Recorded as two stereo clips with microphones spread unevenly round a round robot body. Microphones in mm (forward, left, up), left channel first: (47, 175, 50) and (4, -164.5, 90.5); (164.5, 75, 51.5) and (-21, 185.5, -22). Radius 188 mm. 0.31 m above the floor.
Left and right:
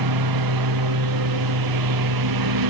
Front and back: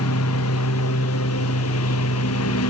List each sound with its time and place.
0.0 s a lawn mower: 70° right